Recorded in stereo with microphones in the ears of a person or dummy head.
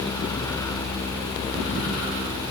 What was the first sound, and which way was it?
Only background noise.